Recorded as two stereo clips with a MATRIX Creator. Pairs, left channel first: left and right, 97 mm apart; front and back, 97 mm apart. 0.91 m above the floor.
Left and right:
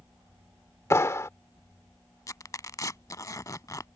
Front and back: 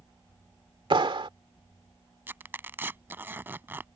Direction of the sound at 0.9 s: 150° left.